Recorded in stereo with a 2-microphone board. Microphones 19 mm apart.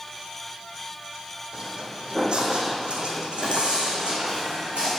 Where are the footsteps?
40° right (ahead or behind), 1.4 m; by 4.9 s 80° right, 2.5 m.